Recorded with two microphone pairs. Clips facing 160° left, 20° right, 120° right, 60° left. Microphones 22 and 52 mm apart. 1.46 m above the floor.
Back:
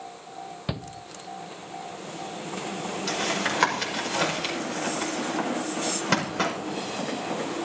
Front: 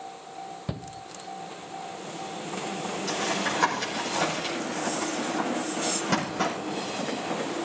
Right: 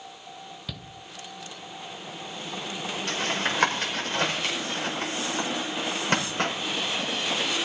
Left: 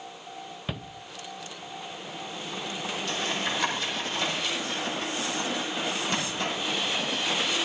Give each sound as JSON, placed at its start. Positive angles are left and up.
{"t": 0.7, "sound": "a shout", "azimuth_deg": 115, "distance_m": 0.6}
{"t": 3.1, "sound": "tapping", "azimuth_deg": -155, "distance_m": 5.0}